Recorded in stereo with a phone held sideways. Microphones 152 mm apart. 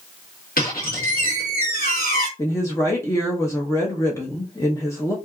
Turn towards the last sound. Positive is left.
turn(degrees=20)  # may be behind; listen again after turning